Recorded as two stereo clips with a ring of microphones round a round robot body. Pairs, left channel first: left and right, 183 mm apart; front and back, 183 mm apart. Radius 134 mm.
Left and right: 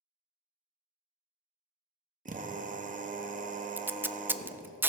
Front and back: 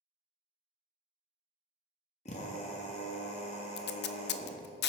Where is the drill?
55° right, 1.4 m.